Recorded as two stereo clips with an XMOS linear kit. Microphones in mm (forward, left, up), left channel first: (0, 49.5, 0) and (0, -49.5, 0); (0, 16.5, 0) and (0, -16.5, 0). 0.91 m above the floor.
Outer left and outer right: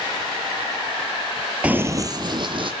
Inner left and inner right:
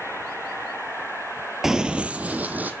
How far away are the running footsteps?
About 1.0 m.